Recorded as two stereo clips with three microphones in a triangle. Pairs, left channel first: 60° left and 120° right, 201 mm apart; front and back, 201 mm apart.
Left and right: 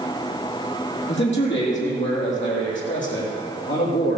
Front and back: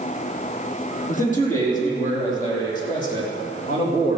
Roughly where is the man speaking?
Ahead left.